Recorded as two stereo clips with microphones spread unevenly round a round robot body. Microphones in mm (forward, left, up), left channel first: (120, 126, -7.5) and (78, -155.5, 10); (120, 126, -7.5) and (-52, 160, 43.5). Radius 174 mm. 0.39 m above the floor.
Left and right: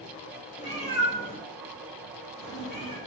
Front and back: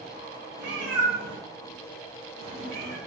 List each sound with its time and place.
0.6 s a cat meowing: 145° left, 1.0 m; by 3.0 s 165° right, 1.9 m